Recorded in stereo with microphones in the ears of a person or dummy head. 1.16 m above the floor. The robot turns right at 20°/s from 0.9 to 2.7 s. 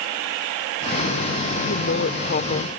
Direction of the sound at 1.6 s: 60° left (ahead or behind).